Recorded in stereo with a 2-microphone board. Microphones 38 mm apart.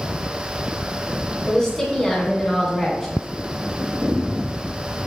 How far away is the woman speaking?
About 1.1 m.